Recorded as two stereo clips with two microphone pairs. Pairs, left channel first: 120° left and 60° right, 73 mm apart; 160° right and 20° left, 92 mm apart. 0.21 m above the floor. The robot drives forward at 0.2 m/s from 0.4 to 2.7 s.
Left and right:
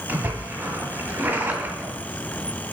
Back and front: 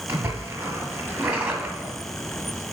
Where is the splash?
25° right, 1.5 m; by 1.9 s 40° right, 1.4 m.